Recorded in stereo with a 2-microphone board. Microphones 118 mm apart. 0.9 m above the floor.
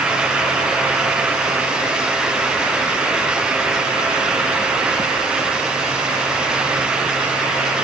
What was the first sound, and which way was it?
Only background noise.